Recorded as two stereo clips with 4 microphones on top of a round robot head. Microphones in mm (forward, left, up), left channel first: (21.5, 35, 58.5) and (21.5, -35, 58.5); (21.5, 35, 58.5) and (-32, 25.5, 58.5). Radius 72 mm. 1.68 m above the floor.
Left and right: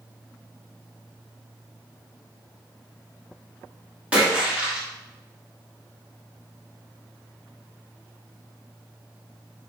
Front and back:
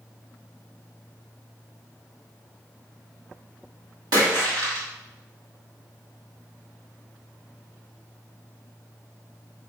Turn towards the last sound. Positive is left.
turn(degrees=-165)